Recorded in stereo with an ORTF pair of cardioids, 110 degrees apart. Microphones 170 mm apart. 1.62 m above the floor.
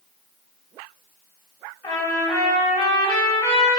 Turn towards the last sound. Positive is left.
turn(degrees=20)